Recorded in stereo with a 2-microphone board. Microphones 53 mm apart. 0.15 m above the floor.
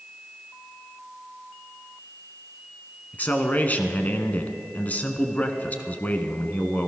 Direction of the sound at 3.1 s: 30° left (ahead or behind).